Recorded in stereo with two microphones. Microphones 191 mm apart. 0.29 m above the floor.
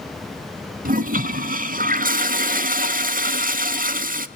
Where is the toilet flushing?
45° right (ahead or behind), 0.7 m.